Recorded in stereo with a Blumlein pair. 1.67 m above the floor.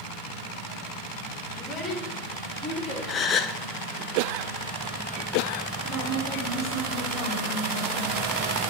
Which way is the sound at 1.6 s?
20° left.